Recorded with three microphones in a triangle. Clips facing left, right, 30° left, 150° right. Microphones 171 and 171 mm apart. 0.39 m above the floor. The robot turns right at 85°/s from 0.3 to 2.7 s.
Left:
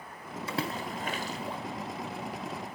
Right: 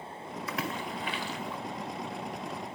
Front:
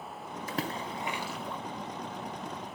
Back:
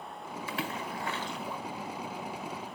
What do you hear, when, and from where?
0.5 s a splash: 40° left, 1.6 m; by 1.6 s 135° left, 1.6 m